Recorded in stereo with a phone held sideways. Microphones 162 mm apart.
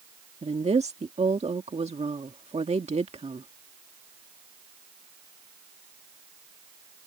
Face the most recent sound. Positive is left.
turn(degrees=-40)  # may be behind; listen again after turning